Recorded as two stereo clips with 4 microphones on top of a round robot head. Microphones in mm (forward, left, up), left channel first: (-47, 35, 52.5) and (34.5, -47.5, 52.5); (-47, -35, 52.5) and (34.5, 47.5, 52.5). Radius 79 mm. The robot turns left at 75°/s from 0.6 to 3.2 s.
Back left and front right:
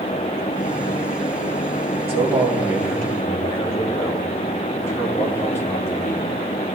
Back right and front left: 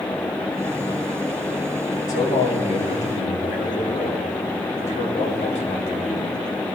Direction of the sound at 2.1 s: 75° right.